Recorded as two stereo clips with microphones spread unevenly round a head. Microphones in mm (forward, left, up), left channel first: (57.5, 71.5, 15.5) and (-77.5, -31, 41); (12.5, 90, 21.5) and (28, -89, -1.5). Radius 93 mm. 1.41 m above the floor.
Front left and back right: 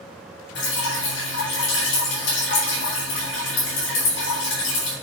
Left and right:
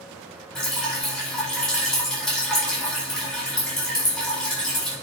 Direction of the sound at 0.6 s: 10° left.